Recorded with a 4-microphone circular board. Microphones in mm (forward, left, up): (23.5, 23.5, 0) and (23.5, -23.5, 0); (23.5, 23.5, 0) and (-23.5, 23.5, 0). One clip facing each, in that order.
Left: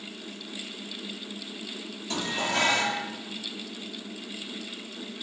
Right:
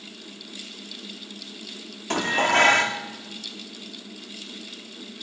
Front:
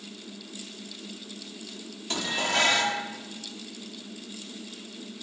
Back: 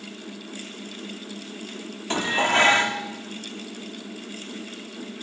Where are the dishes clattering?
125° right, 1.5 m.